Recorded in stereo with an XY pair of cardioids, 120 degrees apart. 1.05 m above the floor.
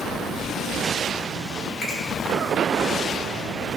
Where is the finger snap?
50° left, 6 m.